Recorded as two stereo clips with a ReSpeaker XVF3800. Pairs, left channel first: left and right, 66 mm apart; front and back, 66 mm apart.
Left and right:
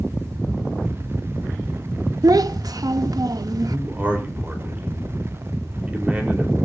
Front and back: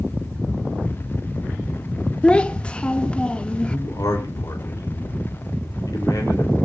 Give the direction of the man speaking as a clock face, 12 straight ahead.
1 o'clock.